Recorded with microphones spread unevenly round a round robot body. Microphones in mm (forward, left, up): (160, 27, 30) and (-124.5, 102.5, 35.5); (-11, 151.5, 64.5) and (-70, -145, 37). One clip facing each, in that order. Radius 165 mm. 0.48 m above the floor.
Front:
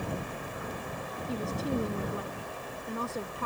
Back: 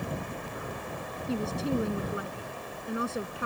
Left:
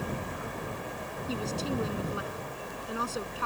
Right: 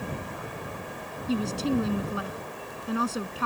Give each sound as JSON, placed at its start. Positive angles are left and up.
{"t": 1.3, "sound": "a woman speaking", "azimuth_deg": -115}